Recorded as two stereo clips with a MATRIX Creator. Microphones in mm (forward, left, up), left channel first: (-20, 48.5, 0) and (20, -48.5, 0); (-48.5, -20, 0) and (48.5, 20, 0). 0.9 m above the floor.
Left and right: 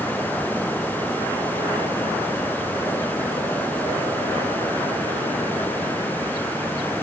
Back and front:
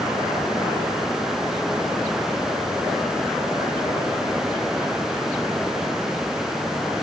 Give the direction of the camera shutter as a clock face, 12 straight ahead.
I don't hear a camera shutter.